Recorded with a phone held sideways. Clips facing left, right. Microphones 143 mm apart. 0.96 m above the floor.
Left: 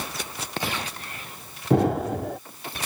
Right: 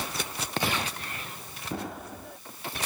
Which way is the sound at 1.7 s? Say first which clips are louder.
Left 15 dB; 65° left (ahead or behind).